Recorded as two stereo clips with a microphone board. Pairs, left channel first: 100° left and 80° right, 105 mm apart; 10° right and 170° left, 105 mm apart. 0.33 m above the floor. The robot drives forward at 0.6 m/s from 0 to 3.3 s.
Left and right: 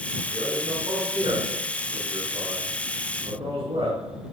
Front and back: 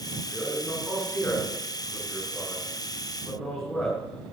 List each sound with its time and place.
0.3 s a man speaking: 80° right, 6 m; by 4.0 s 95° right, 6 m